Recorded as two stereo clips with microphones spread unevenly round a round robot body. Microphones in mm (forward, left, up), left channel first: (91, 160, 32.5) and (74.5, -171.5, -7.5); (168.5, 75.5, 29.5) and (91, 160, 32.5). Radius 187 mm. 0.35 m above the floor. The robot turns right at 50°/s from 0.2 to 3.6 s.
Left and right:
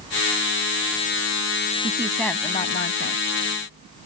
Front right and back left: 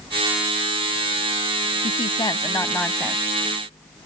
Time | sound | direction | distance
1.8 | a woman speaking | 20° right | ?